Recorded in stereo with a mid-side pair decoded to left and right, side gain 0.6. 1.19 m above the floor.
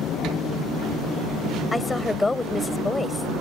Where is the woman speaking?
15° left.